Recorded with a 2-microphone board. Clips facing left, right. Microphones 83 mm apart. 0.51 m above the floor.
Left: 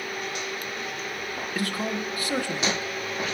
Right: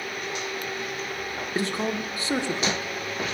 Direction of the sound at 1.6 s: 25° right (ahead or behind).